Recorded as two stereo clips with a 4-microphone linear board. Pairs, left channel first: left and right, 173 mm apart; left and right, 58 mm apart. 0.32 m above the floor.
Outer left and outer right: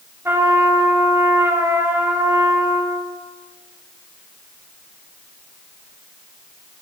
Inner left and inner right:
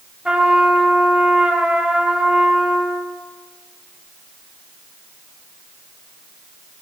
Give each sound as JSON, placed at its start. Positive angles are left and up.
{"t": 0.2, "sound": "a trumpet", "side_deg": -15, "distance_m": 1.0}